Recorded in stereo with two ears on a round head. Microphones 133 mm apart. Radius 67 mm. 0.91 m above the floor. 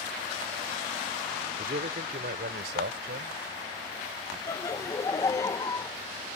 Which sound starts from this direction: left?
Laughter, at 4.5 s.